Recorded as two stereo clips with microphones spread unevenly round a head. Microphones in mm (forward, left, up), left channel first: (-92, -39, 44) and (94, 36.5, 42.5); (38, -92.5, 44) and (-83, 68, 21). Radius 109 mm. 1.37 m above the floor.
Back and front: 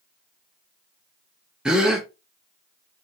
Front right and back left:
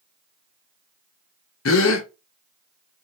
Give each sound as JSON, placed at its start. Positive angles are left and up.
{"t": 1.6, "sound": "a gasp", "azimuth_deg": -65, "distance_m": 0.8}